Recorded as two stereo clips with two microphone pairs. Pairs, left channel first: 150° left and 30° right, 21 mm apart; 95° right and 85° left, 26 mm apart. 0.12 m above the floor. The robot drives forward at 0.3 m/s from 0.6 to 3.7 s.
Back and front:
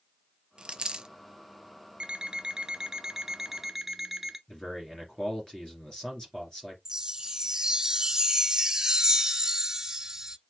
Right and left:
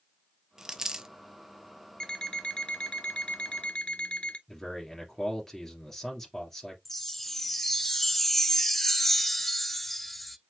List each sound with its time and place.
0.6 s a dropped coin: 15° left, 0.6 m; by 1.1 s 20° left, 0.5 m
2.0 s an alarm clock: 50° right, 0.7 m; by 4.4 s 105° right, 0.6 m
4.5 s a man speaking: 160° right, 2.5 m
6.8 s a chime: 35° right, 0.7 m